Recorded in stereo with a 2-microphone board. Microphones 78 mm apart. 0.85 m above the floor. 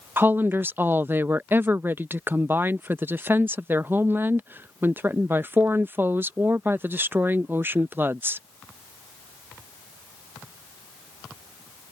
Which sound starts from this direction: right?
A woman speaking, at 0.2 s.